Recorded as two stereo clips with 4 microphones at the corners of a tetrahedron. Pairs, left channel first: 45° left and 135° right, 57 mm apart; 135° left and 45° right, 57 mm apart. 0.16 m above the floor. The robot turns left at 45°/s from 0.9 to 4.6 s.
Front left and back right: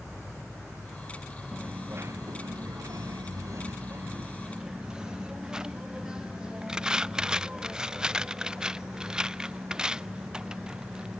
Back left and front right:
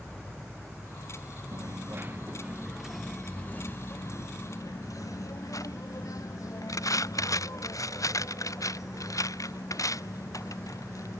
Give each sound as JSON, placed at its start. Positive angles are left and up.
{"t": 1.5, "sound": "a dropped coin", "azimuth_deg": -70}